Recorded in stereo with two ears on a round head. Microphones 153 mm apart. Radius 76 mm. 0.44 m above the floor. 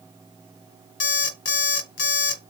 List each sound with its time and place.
1.0 s an alarm clock: 75° left (ahead or behind), 1.2 m